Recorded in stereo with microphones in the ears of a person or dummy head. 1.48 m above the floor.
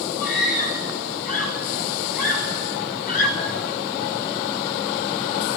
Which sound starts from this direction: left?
A scream, at 0.2 s.